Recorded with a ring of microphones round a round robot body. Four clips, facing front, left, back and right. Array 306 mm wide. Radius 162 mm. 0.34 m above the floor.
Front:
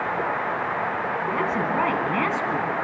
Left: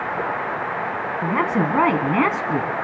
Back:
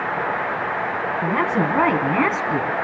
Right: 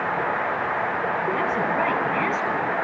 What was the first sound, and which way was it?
A woman speaking, 120° left.